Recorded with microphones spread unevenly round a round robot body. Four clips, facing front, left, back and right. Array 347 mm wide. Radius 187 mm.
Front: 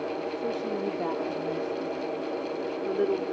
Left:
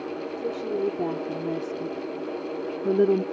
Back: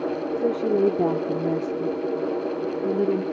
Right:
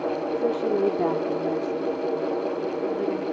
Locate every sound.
0.4 s a woman speaking: 160° right; by 3.2 s 115° left